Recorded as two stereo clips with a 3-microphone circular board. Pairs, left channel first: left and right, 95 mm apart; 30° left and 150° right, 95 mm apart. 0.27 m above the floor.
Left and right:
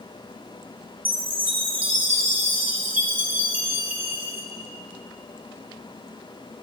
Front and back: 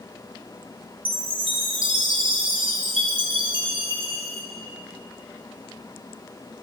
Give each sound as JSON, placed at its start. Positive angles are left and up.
{"t": 1.1, "sound": "a chime", "azimuth_deg": -160, "distance_m": 1.1}